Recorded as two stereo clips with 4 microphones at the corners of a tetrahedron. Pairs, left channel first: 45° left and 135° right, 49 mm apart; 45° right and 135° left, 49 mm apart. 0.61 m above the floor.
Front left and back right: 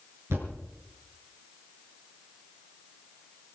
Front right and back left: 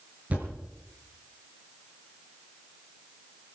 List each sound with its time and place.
0.3 s a thud: 165° right, 5 m